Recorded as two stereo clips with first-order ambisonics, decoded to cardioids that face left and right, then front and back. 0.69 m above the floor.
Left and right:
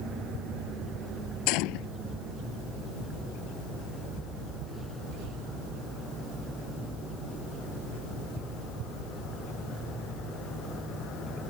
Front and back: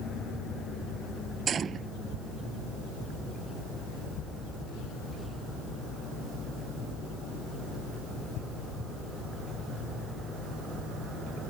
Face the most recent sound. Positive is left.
turn(degrees=115)